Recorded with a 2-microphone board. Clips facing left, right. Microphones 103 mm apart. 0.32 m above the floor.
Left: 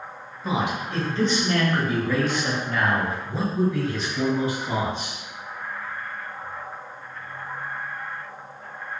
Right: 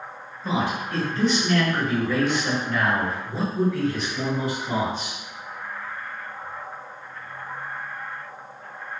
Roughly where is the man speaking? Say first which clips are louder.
Even; centre.